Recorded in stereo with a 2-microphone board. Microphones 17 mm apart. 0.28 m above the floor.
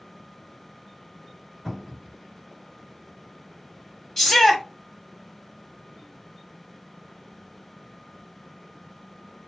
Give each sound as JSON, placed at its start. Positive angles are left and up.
{"t": 1.6, "sound": "a cupboard door", "side_deg": -25, "distance_m": 1.4}
{"t": 4.2, "sound": "a shout", "side_deg": 15, "distance_m": 1.0}